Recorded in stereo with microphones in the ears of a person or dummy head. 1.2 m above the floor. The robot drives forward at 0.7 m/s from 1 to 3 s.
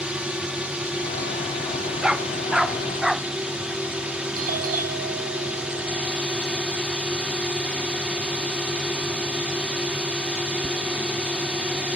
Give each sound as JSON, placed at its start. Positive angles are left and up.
{"t": 0.0, "sound": "a drone", "side_deg": -5}
{"t": 2.0, "sound": "a dog barking", "side_deg": 0}
{"t": 4.4, "sound": "a doorbell", "side_deg": -45}